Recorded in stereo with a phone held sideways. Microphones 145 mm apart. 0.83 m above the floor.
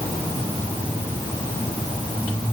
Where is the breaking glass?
I don't hear breaking glass.